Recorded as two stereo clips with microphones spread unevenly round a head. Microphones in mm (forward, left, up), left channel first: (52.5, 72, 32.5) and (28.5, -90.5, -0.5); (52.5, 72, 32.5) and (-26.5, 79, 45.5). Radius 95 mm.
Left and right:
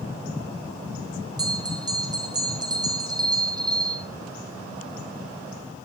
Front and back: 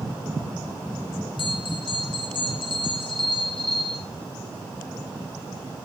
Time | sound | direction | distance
1.4 | a bell | 35° right | 2.0 m